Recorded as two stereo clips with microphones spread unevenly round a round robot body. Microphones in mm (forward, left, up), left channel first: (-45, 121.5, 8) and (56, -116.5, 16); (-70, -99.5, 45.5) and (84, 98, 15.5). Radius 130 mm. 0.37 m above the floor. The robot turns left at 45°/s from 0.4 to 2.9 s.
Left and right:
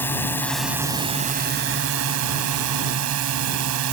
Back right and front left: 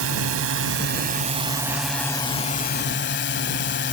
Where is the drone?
30° left; by 3.9 s 80° right.